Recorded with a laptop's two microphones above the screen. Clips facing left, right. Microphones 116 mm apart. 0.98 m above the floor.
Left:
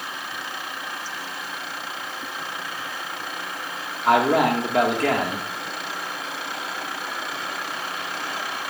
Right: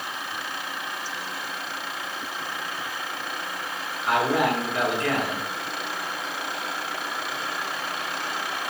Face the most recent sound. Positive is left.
turn(degrees=70)  # may be behind; listen again after turning